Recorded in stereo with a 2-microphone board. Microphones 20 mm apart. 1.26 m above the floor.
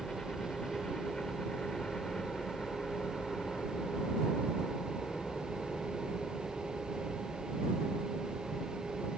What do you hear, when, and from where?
0.0 s a helicopter: 45° left (ahead or behind); by 9.2 s 75° left (ahead or behind)